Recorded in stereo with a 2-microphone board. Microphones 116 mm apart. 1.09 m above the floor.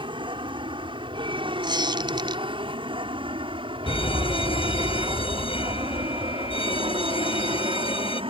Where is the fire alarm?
55° left (ahead or behind).